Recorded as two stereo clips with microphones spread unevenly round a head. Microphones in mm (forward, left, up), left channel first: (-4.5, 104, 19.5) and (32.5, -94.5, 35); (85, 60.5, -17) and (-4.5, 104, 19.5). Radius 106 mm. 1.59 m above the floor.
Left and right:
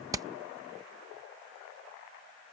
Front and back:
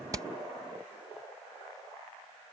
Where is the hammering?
150° right.